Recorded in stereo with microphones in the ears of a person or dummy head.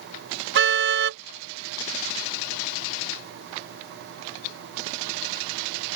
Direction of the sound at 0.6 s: 70° right (ahead or behind).